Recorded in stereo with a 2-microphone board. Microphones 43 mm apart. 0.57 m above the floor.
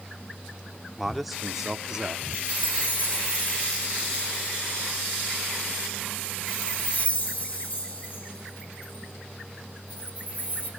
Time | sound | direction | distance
1.0 | a man speaking | 5° left (ahead or behind) | 1.4 m
2.3 | a chime | 35° left (ahead or behind) | 5 m